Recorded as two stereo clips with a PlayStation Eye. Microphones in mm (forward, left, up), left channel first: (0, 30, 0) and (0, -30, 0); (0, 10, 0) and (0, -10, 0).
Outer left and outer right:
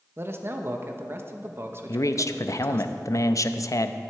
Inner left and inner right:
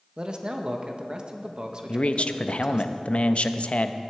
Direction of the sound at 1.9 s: 60° left (ahead or behind).